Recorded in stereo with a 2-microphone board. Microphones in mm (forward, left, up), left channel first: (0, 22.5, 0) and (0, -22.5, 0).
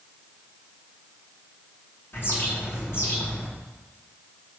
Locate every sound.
2.1 s a bird: 55° left (ahead or behind), 3.5 m